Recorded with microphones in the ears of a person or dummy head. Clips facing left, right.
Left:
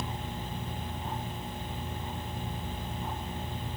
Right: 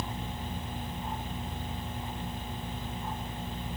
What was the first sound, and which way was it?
Only background noise.